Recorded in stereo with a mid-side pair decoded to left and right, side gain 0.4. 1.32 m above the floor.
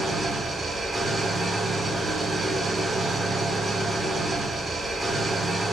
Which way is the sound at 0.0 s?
30° right.